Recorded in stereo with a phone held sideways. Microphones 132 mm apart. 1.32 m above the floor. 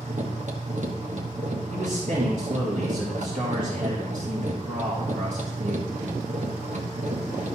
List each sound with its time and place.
0.0 s a machine running: 65° right (ahead or behind), 1.2 m
1.7 s a man speaking: 80° right, 2.5 m